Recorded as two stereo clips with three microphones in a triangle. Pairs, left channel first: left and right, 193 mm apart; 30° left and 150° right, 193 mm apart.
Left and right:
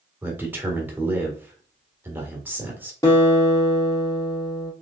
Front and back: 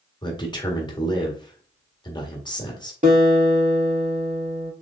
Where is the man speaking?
20° right, 1.5 m.